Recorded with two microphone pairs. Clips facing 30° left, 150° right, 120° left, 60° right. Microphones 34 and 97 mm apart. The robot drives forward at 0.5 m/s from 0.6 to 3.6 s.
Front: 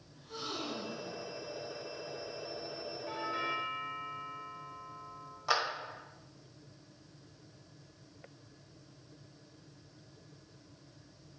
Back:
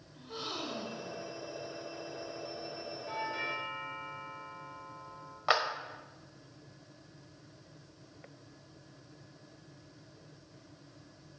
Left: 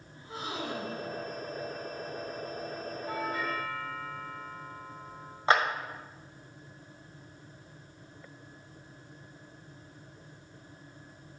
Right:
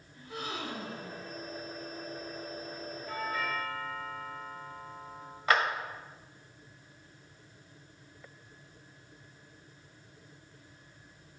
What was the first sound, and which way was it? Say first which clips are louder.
A gasp: back 1 dB, left 1 dB; 155° left.